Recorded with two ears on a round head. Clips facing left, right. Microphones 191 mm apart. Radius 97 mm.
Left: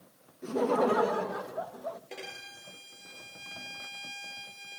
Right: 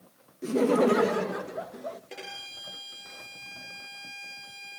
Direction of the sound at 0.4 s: 30° right (ahead or behind).